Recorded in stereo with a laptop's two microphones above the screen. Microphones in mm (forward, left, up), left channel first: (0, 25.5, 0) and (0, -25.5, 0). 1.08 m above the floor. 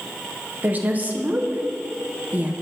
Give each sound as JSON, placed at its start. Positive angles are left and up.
{"t": 0.6, "sound": "a woman speaking", "side_deg": -35, "distance_m": 0.9}